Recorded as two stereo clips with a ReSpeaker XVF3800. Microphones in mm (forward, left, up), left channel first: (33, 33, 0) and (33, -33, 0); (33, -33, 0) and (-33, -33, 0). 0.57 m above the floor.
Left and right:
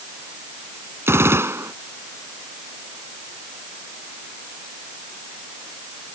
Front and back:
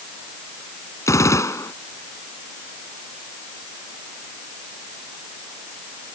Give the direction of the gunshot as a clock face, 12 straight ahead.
1 o'clock.